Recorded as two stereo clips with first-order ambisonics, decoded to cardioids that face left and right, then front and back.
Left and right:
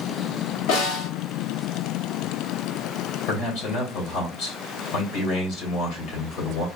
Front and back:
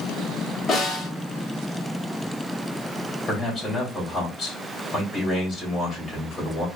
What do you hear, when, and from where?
0.7 s a snare drum: 70° left, 2 m
3.3 s a man speaking: 70° left, 2.5 m